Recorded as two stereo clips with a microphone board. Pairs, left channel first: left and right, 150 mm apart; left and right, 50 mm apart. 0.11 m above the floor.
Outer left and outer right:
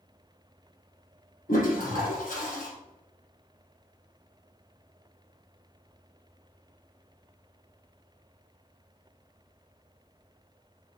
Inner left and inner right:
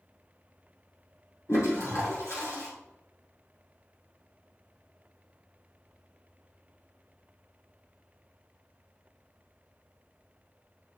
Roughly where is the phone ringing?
No phone ringing in this recording.